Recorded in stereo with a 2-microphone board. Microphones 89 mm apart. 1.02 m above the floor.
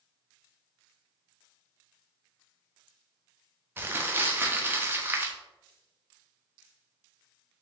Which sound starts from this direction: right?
Crumpling, at 3.8 s.